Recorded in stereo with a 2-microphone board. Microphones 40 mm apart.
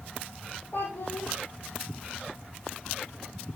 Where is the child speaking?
60° left (ahead or behind), 5.5 m.